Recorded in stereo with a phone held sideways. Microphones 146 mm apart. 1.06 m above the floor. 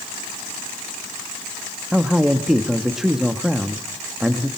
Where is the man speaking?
5° right (ahead or behind), 1.4 m.